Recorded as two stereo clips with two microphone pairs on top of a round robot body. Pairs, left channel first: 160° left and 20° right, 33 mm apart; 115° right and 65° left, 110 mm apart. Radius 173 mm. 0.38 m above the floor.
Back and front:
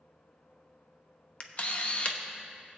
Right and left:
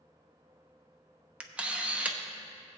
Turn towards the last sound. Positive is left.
turn(degrees=130)